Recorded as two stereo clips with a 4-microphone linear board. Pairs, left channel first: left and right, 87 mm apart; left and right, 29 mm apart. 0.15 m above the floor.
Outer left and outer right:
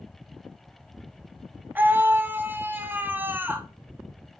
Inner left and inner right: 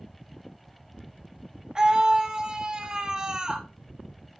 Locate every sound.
1.8 s a scream: 25° right (ahead or behind), 1.1 m